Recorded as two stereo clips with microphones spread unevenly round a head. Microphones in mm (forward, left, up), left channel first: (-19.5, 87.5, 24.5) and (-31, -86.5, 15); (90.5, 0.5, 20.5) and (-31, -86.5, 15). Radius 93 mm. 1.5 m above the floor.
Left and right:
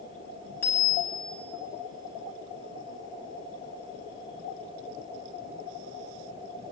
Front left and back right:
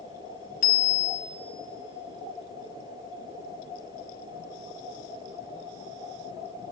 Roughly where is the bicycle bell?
Ahead.